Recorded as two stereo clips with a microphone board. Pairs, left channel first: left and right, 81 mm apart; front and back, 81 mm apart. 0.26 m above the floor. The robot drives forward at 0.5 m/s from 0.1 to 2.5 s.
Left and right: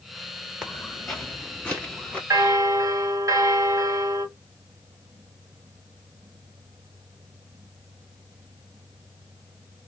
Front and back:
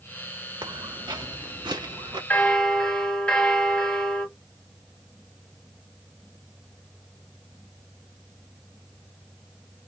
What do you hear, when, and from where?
0.6 s footsteps: 175° right, 1.3 m; by 2.2 s 165° left, 2.5 m
2.3 s a bell: 65° right, 0.8 m; by 4.3 s 75° right, 0.7 m